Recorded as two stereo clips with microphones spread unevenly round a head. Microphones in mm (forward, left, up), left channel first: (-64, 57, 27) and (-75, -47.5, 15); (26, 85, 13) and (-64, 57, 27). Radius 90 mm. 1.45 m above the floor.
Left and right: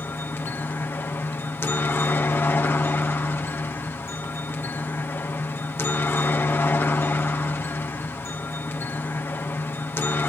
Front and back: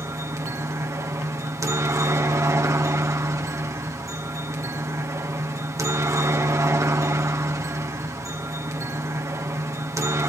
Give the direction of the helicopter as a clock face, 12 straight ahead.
7 o'clock.